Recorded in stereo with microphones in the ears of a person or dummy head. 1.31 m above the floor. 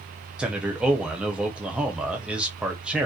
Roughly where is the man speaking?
Centre.